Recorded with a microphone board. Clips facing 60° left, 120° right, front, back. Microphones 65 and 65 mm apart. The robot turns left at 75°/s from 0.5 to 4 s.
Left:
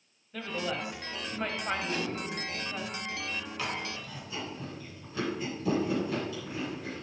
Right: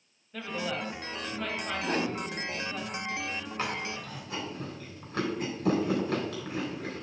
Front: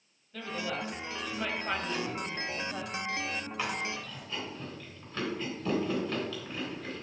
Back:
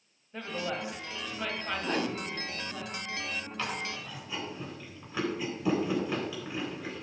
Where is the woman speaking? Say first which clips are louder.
Even, back 1 dB; 150° left, 1.5 m; by 2.8 s 25° right, 1.5 m.